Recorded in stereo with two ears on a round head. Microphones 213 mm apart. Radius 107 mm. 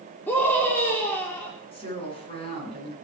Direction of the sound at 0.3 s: 10° left (ahead or behind).